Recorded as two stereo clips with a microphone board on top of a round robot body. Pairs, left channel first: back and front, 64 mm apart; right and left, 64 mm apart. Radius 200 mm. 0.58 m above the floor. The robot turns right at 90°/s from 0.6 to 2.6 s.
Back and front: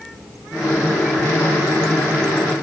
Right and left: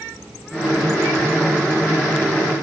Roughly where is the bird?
I don't hear a bird.